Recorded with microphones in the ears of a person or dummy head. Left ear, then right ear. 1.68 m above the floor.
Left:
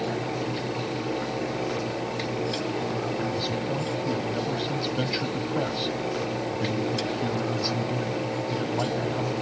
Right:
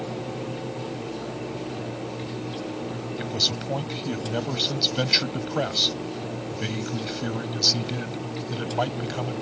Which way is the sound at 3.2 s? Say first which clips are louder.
Right 3 dB; 35° right (ahead or behind).